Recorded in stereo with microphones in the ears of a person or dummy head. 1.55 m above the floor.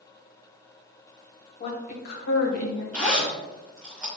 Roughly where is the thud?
I don't hear a thud.